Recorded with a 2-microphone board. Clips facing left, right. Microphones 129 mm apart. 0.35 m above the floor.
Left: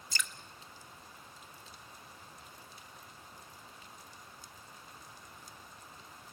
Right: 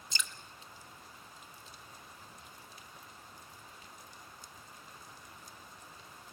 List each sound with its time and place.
0.1 s dripping: 25° right (ahead or behind), 1.1 m